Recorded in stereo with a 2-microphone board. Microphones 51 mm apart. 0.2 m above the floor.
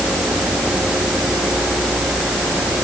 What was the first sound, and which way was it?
Only background noise.